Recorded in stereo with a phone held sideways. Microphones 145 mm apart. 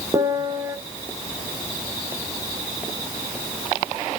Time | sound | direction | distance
0.1 | a piano | 20° right (ahead or behind) | 0.9 m